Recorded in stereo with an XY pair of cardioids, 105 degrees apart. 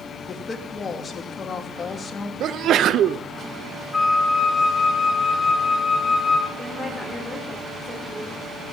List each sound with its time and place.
0.3 s a woman speaking: 40° left, 2 m
2.4 s a sneeze: 65° right, 0.6 m
3.9 s a flute: 15° left, 2.5 m
6.6 s a woman speaking: 20° left, 4.5 m